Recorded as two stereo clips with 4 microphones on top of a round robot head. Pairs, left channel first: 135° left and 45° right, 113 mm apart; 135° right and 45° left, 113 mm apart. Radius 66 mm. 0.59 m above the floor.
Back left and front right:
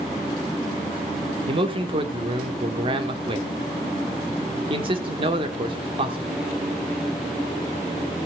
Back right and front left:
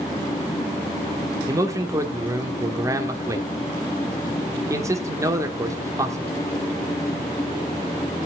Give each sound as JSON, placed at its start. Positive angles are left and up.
{"t": 1.5, "sound": "a man speaking", "azimuth_deg": -15, "distance_m": 1.5}